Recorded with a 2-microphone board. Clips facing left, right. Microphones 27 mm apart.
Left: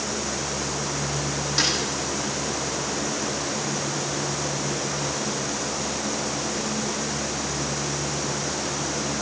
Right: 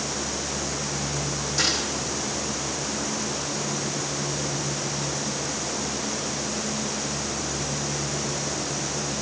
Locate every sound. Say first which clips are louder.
1.6 s a snare drum: left 1 dB; 35° left (ahead or behind), 6 m